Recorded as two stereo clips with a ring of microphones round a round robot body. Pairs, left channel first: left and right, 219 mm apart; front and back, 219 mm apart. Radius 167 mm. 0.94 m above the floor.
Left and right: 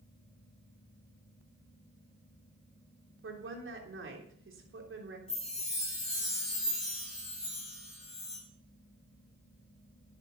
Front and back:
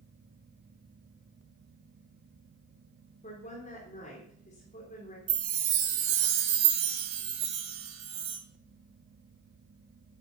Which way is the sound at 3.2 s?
65° right.